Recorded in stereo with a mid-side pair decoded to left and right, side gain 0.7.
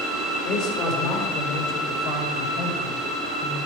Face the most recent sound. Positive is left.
turn(degrees=45)